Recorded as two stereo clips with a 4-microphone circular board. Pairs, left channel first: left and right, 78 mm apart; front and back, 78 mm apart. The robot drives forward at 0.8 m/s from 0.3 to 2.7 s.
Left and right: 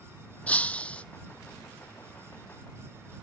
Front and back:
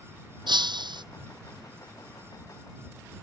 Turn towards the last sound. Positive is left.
turn(degrees=170)